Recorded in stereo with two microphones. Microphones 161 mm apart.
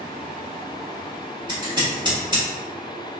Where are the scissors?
30° right (ahead or behind), 1.3 m.